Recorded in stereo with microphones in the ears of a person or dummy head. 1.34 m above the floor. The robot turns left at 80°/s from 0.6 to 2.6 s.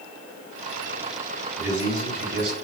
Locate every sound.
1.6 s a man speaking: 10° right, 1.7 m; by 2.5 s 90° right, 1.7 m